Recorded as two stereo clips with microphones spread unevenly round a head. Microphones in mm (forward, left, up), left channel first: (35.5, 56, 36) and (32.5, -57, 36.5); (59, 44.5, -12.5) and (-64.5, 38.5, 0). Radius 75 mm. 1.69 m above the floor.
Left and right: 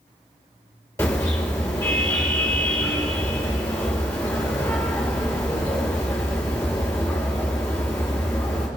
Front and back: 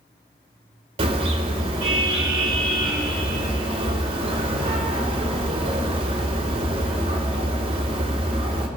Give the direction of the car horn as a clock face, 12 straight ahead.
7 o'clock.